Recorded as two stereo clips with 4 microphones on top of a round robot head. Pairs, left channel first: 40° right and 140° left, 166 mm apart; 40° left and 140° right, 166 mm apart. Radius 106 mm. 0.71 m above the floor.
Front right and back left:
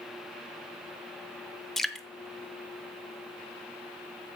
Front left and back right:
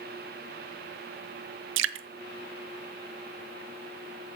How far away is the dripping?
About 0.5 m.